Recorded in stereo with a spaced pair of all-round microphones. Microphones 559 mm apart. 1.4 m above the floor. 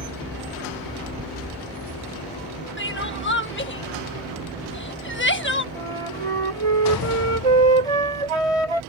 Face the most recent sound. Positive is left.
turn(degrees=-80)